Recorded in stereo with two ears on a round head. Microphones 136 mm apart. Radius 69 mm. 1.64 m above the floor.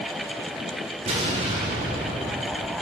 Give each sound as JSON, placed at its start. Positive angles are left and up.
{"t": 1.1, "sound": "an explosion", "side_deg": -40, "distance_m": 3.5}